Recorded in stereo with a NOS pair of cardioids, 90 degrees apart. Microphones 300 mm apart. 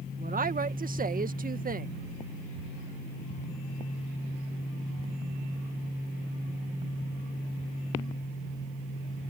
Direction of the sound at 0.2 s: 30° right.